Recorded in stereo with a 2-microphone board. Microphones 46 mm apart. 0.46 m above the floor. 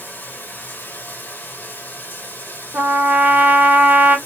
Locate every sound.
0.0 s running water: 45° left (ahead or behind), 1.0 m
2.7 s a trumpet: 35° right (ahead or behind), 0.9 m